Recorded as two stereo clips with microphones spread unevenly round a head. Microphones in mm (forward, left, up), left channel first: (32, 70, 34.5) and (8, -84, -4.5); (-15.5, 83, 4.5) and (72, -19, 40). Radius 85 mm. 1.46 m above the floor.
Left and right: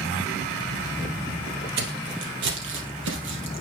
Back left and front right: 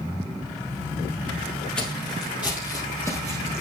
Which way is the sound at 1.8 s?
135° right.